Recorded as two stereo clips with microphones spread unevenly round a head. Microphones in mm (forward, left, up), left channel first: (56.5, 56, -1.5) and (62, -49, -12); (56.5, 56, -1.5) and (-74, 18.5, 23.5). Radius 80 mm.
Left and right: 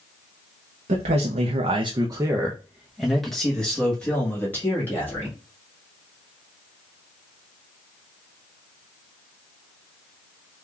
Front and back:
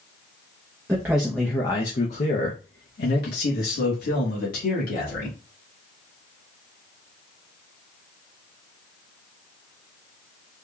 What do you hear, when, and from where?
0.9 s a man speaking: 85° right, 0.7 m; by 5.3 s 25° left, 2.0 m